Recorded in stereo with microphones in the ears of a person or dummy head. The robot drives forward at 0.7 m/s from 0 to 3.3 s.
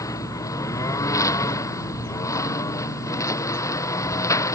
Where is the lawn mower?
20° left (ahead or behind).